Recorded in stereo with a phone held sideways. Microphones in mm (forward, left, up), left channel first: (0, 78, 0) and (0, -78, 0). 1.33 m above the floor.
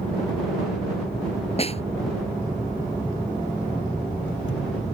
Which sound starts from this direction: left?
A snare drum, at 1.6 s.